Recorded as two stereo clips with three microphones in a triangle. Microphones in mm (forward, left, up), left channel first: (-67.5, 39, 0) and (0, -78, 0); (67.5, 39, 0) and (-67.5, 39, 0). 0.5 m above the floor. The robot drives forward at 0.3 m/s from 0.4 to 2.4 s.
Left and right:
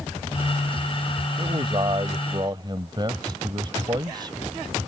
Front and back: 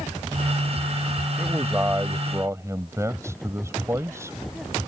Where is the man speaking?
110° right; by 4.4 s 115° right.